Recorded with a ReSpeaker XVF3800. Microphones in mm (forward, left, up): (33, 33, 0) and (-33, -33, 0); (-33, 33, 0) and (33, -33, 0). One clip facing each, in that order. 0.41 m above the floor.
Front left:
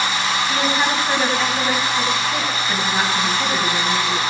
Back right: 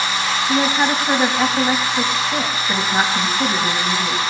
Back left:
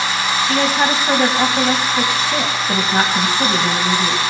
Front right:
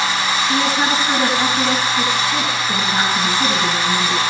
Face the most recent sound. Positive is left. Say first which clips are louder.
# back right 5 dB, back left 2 dB
turn(degrees=155)